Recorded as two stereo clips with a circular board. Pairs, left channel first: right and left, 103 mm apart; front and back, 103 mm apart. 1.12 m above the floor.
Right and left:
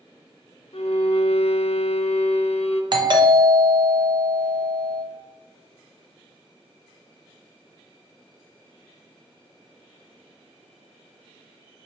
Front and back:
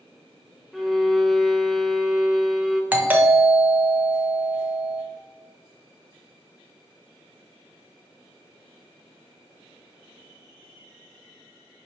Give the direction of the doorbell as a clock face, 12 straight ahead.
8 o'clock.